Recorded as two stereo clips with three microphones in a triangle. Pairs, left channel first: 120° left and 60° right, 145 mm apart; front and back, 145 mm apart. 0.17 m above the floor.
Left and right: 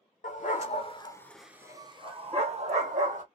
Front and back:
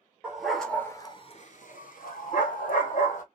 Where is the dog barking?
100° left, 0.9 m; by 3.2 s 30° right, 1.6 m.